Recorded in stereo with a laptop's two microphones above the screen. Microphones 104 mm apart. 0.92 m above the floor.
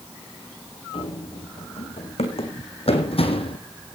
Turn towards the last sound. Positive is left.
turn(degrees=60)  # may be behind; listen again after turning